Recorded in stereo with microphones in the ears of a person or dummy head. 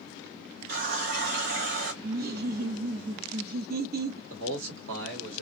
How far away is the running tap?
About 0.7 m.